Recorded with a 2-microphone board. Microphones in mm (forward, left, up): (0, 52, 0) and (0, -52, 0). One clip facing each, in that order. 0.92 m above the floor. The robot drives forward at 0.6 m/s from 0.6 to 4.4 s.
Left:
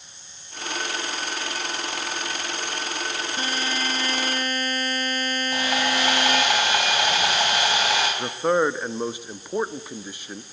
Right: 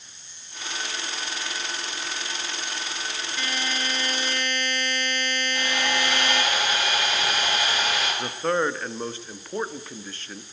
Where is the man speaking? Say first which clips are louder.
Left 3 dB; 15° left (ahead or behind), 1.2 m.